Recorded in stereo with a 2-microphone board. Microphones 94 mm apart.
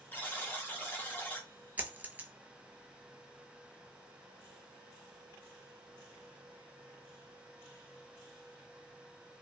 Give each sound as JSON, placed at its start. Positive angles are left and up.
{"t": 0.1, "sound": "a buzzer", "side_deg": 20, "distance_m": 0.7}
{"t": 1.8, "sound": "a dropped coin", "side_deg": -20, "distance_m": 0.5}